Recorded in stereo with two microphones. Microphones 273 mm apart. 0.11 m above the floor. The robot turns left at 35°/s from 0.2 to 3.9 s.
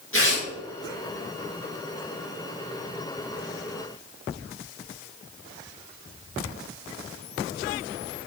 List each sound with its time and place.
0.1 s tearing paper: 50° left (ahead or behind), 4 m; by 0.4 s 40° left (ahead or behind), 4 m